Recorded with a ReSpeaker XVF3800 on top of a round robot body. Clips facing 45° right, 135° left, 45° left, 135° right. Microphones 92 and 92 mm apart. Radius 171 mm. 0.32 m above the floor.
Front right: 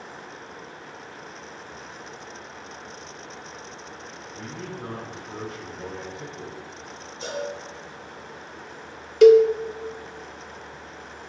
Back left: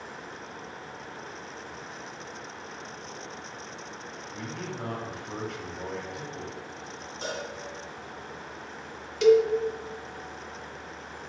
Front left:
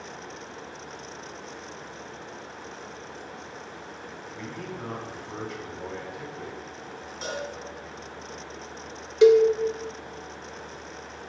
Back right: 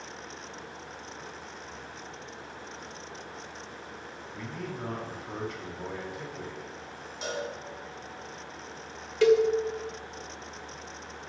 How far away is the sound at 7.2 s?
About 2.5 m.